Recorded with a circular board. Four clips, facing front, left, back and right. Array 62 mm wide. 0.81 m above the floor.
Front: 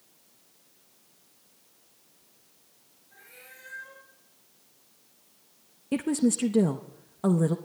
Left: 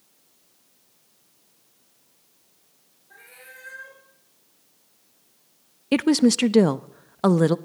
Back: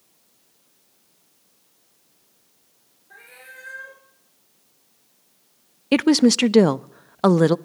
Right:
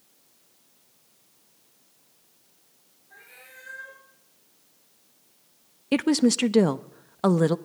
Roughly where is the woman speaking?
Behind.